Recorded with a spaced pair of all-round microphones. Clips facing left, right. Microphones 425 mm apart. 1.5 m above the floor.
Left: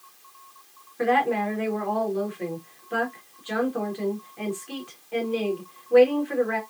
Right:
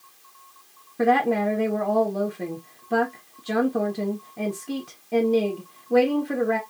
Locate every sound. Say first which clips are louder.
1.0 s a woman speaking: right 3 dB; 60° right (ahead or behind), 1.2 m